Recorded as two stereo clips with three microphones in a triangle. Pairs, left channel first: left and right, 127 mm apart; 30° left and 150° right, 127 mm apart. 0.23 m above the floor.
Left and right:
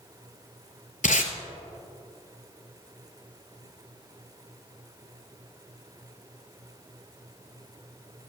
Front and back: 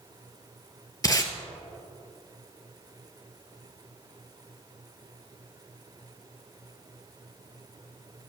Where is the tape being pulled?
90° left, 0.9 m.